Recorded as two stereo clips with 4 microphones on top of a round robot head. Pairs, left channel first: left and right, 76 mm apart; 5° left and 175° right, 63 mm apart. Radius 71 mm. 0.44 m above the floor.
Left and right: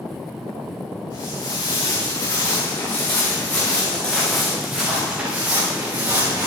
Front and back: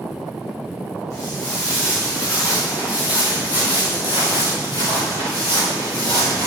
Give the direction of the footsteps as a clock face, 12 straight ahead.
10 o'clock.